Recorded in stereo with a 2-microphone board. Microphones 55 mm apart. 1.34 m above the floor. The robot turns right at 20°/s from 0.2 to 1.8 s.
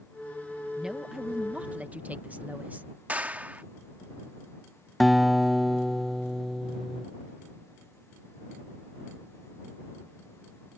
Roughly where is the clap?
Right.